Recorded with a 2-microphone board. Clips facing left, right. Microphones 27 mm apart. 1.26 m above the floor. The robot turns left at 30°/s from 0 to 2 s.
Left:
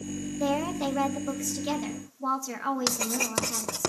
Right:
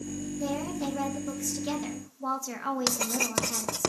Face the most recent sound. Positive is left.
turn(degrees=-5)  # may be behind; listen again after turning